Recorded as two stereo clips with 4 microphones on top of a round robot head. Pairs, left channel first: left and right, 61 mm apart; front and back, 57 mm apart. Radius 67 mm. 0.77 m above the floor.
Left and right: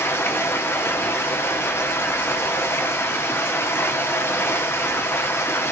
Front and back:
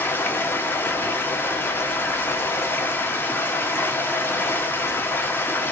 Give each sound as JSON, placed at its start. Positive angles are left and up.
{"t": 0.0, "sound": "running water", "azimuth_deg": 45, "distance_m": 0.9}